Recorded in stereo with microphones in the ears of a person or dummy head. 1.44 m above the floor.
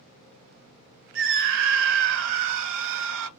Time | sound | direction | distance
1.1 | a scream | 70° right (ahead or behind) | 1.0 m